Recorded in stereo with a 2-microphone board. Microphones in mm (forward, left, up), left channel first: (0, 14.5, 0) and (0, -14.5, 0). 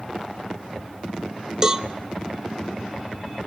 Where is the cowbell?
20° right (ahead or behind), 0.7 m.